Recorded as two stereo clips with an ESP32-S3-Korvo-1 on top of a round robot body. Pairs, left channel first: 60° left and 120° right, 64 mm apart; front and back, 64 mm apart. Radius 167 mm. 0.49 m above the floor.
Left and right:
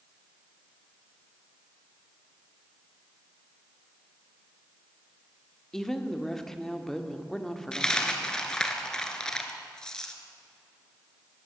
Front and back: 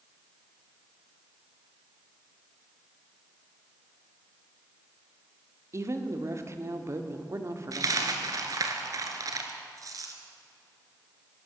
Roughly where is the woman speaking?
Behind left.